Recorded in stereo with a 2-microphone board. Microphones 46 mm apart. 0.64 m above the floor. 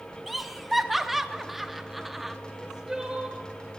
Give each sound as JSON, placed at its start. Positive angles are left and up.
{"t": 0.3, "sound": "laughter", "side_deg": -5, "distance_m": 0.7}
{"t": 2.5, "sound": "crying", "side_deg": -15, "distance_m": 1.7}